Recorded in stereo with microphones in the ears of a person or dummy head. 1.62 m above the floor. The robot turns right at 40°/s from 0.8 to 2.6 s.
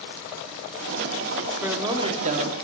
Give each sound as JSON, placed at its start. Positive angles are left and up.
{"t": 1.6, "sound": "a man speaking", "azimuth_deg": -170, "distance_m": 0.6}